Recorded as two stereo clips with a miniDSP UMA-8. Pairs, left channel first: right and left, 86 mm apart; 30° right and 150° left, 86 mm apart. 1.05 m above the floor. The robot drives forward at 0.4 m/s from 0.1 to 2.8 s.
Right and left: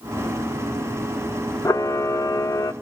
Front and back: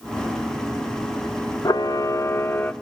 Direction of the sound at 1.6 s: 50° right.